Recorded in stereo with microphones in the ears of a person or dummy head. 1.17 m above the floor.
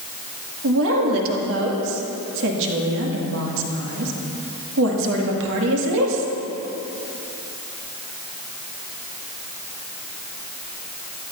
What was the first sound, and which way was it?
A woman speaking, 70° right (ahead or behind).